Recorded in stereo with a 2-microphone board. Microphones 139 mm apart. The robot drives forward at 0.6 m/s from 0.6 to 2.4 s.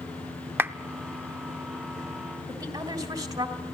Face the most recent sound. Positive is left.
turn(degrees=-25)  # may be behind; listen again after turning